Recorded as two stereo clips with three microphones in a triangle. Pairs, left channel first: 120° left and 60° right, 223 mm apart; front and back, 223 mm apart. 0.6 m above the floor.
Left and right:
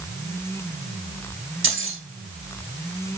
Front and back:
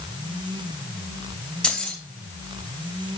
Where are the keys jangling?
85° right, 1.9 m.